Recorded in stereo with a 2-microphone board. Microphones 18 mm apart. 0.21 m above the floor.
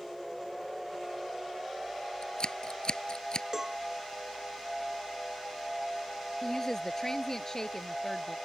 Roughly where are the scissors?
Left.